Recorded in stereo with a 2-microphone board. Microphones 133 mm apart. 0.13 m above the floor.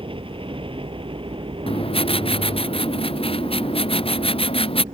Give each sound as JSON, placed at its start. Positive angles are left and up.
{"t": 0.0, "sound": "a helicopter", "side_deg": -40}
{"t": 1.7, "sound": "writing", "side_deg": 45}